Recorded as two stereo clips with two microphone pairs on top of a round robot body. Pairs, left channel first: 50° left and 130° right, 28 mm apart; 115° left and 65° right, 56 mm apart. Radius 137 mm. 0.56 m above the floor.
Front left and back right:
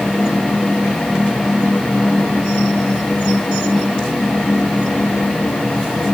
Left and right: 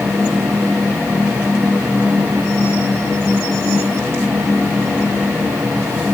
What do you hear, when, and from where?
Only background noise.